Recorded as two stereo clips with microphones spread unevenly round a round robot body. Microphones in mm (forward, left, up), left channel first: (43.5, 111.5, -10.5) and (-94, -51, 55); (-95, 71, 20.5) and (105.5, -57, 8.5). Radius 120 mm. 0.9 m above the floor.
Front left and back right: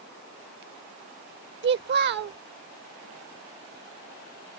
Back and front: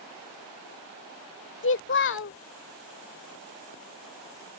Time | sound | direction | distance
1.6 | a child speaking | 170° right | ?